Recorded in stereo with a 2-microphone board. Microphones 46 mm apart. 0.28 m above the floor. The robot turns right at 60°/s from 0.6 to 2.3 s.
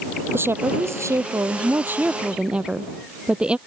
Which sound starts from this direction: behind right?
A woman speaking, at 0.3 s.